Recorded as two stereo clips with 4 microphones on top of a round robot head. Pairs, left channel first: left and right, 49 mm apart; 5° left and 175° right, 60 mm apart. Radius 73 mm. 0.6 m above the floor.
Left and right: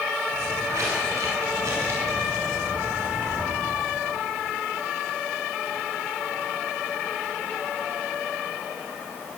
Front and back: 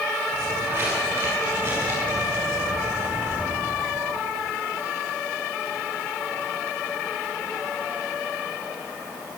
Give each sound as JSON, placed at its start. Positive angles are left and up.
{"t": 0.3, "sound": "footsteps", "azimuth_deg": -120, "distance_m": 9.0}